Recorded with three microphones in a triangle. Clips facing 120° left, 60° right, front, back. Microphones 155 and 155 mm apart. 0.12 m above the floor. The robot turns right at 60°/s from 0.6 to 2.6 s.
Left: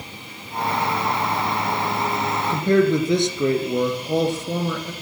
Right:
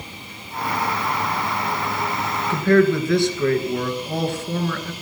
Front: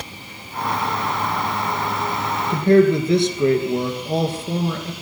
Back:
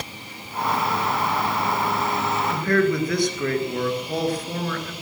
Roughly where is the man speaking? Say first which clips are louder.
Right 2 dB, front 8 dB; ahead left.